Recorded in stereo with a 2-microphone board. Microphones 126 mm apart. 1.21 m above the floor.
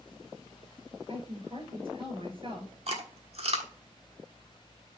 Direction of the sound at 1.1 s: 45° right (ahead or behind).